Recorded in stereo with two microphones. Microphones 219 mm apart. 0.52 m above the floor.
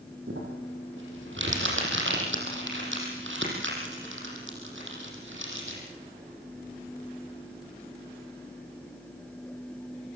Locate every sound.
0.3 s crumpling: 65° right (ahead or behind), 6.5 m